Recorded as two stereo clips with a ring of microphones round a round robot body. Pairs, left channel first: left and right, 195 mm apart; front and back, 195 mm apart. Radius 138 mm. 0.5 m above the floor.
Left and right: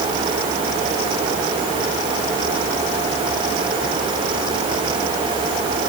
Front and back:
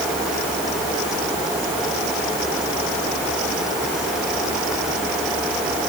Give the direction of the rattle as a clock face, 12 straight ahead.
I don't hear a rattle.